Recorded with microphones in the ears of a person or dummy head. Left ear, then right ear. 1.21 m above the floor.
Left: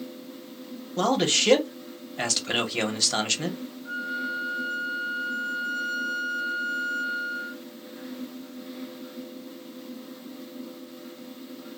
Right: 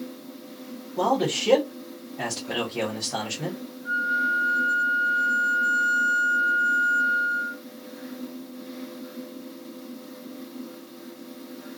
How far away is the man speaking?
About 0.9 m.